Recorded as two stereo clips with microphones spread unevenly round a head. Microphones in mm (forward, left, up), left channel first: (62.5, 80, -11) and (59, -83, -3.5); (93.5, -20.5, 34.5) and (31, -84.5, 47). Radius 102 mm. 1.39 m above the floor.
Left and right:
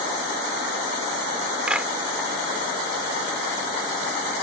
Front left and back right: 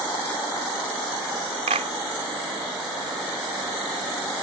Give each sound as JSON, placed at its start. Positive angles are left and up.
{"t": 1.7, "sound": "a clap", "azimuth_deg": -175}